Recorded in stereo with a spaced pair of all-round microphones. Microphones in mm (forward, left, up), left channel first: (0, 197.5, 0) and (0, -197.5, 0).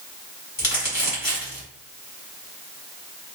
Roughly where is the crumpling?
Left.